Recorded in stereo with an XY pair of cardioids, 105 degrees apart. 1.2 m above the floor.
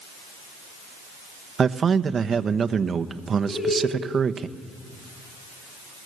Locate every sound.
1.6 s a man speaking: 40° right, 1.0 m
3.5 s laughter: 35° left, 6.5 m